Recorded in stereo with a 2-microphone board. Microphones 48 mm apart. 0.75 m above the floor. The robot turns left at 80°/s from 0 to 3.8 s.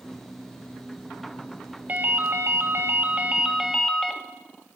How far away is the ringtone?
About 0.7 m.